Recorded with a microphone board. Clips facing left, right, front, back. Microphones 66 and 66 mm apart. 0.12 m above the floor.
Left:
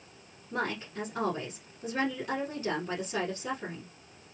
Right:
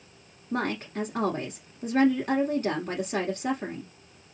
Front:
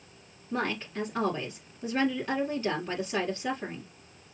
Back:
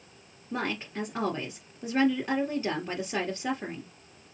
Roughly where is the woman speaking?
Behind right.